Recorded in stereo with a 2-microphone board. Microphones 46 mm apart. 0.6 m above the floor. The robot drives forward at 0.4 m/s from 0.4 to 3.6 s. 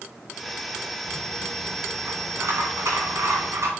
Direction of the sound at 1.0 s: 65° right (ahead or behind).